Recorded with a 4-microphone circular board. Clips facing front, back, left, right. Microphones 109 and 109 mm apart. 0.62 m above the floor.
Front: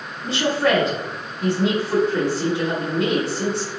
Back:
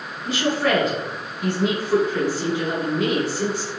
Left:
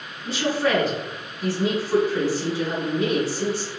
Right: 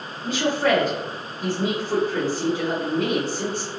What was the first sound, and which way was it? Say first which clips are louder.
A woman speaking: front 2 dB, right 2 dB; 55° right.